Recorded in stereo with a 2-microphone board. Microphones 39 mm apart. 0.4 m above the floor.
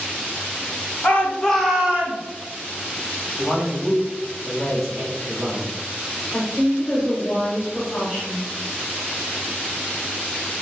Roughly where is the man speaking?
Centre.